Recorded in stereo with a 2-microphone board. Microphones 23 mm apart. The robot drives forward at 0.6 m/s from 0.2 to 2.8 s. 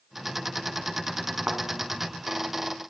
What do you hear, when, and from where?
1.5 s a thud: 60° right (ahead or behind), 1.7 m